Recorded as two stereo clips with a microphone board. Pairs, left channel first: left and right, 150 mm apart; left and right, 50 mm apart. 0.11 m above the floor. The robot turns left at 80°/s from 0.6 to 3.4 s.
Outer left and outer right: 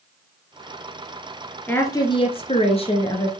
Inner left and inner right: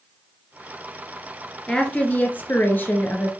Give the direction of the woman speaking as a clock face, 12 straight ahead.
7 o'clock.